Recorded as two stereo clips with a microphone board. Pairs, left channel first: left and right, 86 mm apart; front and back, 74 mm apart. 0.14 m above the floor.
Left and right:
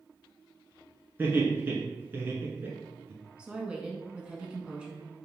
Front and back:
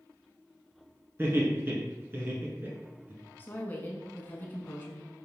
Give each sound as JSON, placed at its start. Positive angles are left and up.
{"t": 1.2, "sound": "laughter", "azimuth_deg": -145, "distance_m": 1.6}
{"t": 3.4, "sound": "a woman speaking", "azimuth_deg": -25, "distance_m": 1.1}